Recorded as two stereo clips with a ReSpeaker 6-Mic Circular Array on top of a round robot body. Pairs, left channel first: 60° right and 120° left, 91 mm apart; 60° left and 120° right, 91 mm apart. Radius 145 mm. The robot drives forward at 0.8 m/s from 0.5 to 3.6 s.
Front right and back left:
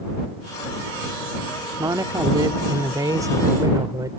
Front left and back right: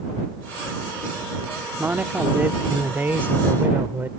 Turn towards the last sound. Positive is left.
turn(degrees=170)